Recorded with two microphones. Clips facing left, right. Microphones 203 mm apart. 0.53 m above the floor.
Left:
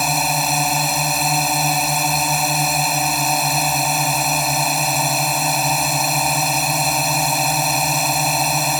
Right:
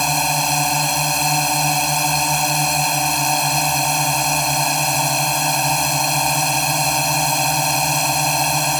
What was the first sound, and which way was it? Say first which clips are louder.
A drone: even; centre (ahead or behind).